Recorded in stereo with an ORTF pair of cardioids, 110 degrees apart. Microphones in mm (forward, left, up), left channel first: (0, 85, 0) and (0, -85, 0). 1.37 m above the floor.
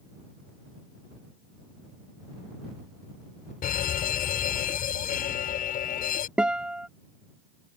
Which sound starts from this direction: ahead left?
A fire alarm, at 3.6 s.